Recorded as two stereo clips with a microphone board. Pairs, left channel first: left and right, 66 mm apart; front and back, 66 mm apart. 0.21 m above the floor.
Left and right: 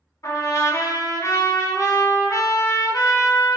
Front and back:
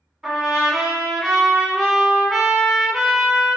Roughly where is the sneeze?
No sneeze in this recording.